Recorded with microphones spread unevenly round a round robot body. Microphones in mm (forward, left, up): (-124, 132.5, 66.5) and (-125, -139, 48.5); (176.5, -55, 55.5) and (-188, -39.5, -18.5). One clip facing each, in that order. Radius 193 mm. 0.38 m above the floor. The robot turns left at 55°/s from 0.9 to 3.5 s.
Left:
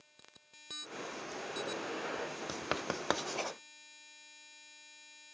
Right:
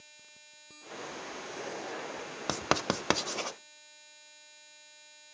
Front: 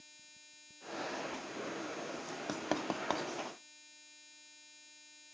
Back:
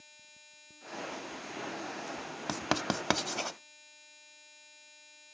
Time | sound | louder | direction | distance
2.5 | writing | right 10 dB, back 3 dB | 110° right | 0.6 m